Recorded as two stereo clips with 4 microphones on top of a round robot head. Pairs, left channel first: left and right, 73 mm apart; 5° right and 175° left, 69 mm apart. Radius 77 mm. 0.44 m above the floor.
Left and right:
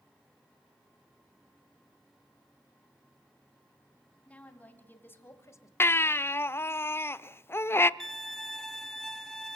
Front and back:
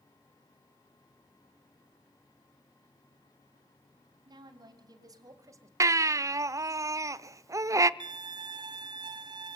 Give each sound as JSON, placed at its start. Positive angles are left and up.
{"t": 4.2, "sound": "a woman speaking", "azimuth_deg": 165, "distance_m": 3.5}
{"t": 5.8, "sound": "a baby crying", "azimuth_deg": 145, "distance_m": 0.6}
{"t": 8.0, "sound": "a violin", "azimuth_deg": 175, "distance_m": 1.6}